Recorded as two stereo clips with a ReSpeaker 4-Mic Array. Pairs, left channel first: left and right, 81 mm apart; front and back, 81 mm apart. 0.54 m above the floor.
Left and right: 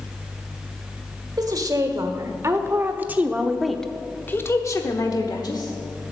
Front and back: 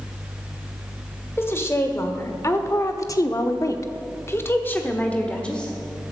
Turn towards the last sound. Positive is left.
turn(degrees=80)